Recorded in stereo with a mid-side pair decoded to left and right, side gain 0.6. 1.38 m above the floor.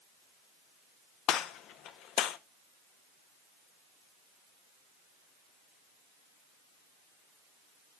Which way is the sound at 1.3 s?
65° left.